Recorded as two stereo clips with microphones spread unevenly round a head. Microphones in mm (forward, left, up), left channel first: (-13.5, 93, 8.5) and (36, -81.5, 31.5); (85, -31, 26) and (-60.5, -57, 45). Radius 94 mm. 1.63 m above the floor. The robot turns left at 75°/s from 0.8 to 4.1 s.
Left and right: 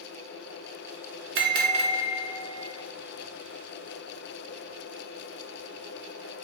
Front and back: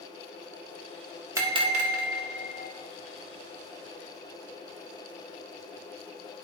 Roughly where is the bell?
Right.